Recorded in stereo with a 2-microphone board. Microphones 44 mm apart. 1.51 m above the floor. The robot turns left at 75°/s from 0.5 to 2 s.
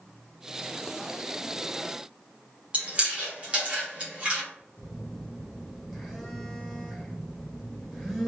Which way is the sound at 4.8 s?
5° right (ahead or behind).